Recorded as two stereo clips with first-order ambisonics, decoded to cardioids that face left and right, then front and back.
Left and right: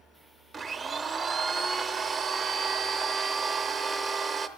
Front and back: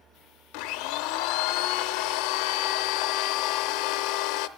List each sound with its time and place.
0.5 s a blender: 15° right, 0.5 m